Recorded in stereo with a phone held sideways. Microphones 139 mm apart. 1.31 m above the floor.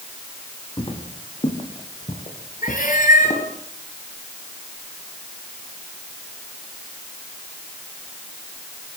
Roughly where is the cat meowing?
Left.